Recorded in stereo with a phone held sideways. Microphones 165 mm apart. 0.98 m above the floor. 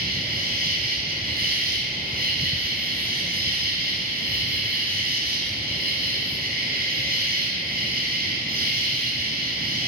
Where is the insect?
65° right (ahead or behind), 1.1 m.